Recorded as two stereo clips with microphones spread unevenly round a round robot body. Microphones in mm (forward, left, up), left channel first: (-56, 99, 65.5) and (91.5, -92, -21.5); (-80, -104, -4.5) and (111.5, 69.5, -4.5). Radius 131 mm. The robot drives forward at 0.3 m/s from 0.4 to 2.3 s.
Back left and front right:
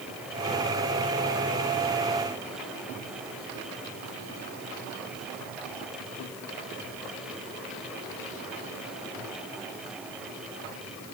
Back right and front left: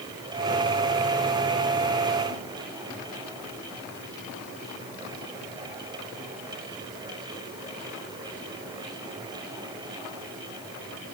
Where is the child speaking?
I don't hear a child speaking.